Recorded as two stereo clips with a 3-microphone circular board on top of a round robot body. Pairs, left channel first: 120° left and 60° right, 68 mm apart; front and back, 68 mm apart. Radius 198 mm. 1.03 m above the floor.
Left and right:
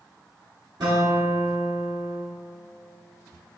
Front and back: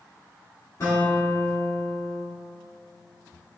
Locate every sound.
0.8 s a guitar: 45° right, 0.6 m